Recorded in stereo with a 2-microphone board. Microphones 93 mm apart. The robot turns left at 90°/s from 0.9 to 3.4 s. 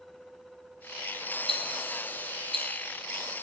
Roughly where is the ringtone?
No ringtone in this recording.